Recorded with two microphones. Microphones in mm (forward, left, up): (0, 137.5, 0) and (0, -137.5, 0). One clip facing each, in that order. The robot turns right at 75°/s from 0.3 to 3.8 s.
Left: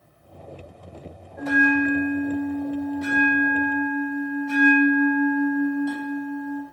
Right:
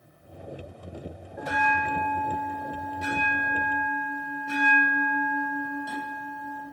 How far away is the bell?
About 1.8 m.